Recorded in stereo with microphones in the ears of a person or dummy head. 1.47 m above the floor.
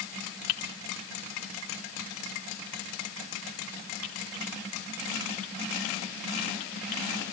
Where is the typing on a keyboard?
40° left (ahead or behind), 2.5 m.